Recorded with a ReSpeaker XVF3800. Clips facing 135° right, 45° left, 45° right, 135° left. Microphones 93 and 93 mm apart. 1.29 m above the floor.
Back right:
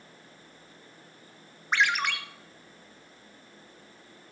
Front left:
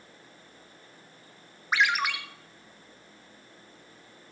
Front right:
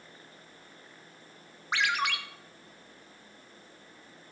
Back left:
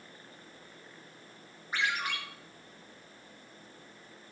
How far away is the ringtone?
About 1.0 m.